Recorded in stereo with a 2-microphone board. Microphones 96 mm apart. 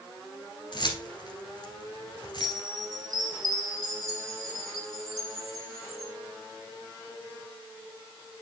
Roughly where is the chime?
Right.